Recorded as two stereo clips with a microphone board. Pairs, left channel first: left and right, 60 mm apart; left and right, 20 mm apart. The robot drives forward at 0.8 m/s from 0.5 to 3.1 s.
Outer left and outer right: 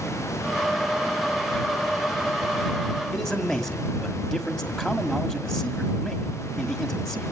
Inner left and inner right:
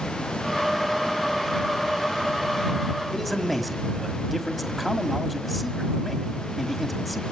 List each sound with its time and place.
3.1 s a man speaking: 10° left (ahead or behind), 2 m